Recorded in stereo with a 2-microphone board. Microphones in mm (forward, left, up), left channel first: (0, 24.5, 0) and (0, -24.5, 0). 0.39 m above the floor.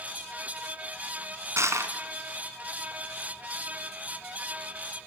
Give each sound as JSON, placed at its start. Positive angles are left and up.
{"t": 1.6, "sound": "crushing", "side_deg": -75, "distance_m": 2.0}